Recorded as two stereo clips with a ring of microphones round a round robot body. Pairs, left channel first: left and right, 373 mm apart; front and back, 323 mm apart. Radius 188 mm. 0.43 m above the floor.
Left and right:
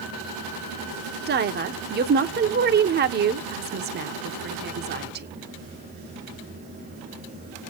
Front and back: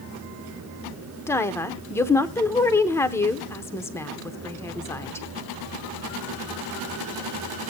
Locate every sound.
1.3 s a woman speaking: 70° right, 0.8 m